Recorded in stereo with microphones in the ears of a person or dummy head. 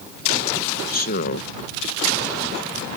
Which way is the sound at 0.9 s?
50° left (ahead or behind).